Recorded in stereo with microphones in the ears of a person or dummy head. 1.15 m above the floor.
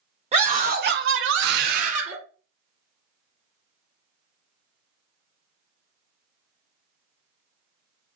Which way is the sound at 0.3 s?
25° right (ahead or behind).